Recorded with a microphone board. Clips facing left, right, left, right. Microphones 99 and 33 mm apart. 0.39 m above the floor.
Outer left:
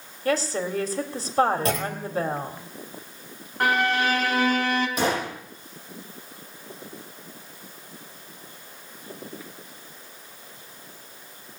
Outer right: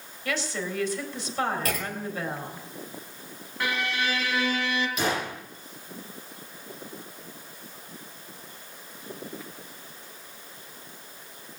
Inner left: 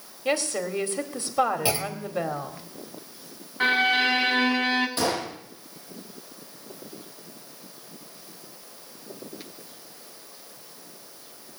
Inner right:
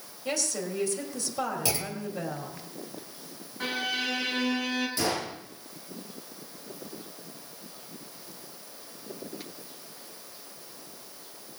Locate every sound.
0.2 s a woman speaking: 40° left (ahead or behind), 2 m
1.6 s a clunk: 30° left (ahead or behind), 2 m
3.6 s a violin: 45° left (ahead or behind), 2 m
5.0 s a gunshot: 40° left (ahead or behind), 7.5 m